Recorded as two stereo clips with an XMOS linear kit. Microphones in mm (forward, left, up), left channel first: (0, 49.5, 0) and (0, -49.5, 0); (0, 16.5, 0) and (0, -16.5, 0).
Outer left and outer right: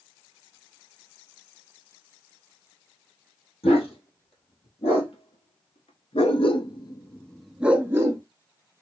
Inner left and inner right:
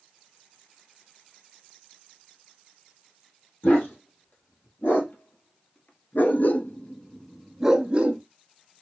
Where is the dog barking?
75° left (ahead or behind), 2.5 m; by 8.2 s 30° right (ahead or behind), 0.9 m.